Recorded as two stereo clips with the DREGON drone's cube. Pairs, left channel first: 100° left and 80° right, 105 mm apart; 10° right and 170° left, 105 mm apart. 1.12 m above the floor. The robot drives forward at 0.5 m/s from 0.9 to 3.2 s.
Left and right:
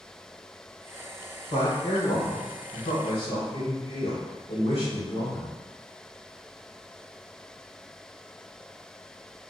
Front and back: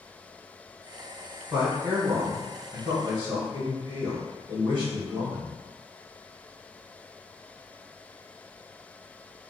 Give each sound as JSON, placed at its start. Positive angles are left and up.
{"t": 1.5, "sound": "a man speaking", "azimuth_deg": 85, "distance_m": 1.1}